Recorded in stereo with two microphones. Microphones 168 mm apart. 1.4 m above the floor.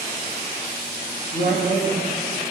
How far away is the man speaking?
About 2.5 m.